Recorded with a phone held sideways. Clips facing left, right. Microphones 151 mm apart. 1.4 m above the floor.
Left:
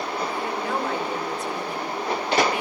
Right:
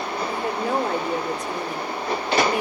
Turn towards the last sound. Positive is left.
turn(degrees=-40)  # may be behind; listen again after turning